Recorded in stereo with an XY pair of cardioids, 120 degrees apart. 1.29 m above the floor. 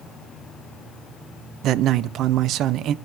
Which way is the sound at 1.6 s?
70° right.